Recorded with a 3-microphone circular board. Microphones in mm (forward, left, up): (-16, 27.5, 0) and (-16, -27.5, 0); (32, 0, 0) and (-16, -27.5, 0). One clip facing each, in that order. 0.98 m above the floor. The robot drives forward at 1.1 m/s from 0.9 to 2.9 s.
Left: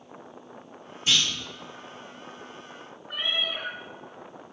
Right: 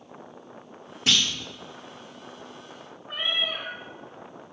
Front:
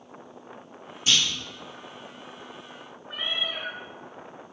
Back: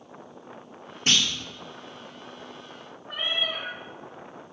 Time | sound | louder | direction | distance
1.1 | a clunk | right 1 dB, even | 110° right | 1.2 m
3.1 | a cat meowing | right 1 dB, back 2 dB | 165° right | 3.5 m